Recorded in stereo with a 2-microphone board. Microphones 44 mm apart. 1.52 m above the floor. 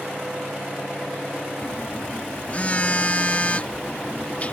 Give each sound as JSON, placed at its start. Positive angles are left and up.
{"t": 1.6, "sound": "a phone buzzing", "side_deg": 35}